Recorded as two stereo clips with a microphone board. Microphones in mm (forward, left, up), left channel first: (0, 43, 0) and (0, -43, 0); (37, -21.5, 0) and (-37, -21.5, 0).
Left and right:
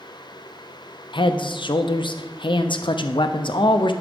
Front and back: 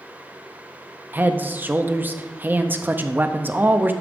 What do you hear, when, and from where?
1.1 s a man speaking: 115° left, 0.5 m